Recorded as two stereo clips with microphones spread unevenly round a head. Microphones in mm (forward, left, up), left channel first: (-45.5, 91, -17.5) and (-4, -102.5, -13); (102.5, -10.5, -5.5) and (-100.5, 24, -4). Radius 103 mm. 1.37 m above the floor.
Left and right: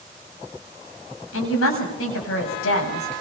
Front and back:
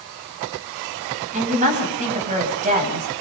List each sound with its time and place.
1.3 s a woman speaking: 115° left, 8.5 m